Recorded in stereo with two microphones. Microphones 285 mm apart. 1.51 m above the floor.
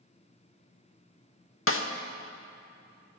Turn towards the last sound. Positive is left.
turn(degrees=50)  # may be behind; listen again after turning